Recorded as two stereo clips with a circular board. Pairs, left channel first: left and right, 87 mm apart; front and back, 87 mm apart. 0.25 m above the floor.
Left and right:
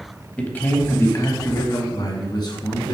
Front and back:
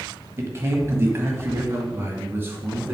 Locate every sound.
0.4 s a man speaking: 155° left, 1.1 m; by 3.0 s 115° left, 2.5 m